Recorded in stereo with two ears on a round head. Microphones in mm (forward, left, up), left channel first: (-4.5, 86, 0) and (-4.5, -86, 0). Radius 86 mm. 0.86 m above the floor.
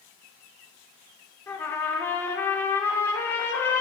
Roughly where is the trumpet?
Centre.